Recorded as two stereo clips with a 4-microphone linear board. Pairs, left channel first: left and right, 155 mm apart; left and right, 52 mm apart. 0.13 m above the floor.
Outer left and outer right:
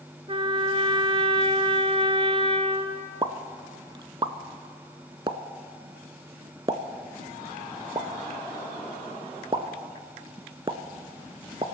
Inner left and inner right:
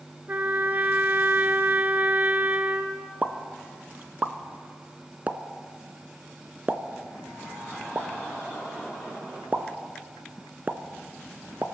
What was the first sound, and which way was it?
A trumpet, 35° right (ahead or behind).